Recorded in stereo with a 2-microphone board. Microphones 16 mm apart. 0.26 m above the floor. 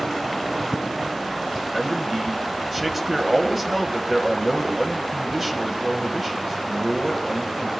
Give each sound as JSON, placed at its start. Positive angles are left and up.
{"t": 1.7, "sound": "a man speaking", "side_deg": -20, "distance_m": 1.4}